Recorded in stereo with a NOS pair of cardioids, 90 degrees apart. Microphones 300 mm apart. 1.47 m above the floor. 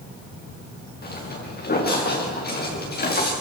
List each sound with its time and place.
1.0 s footsteps: 30° left, 7.5 m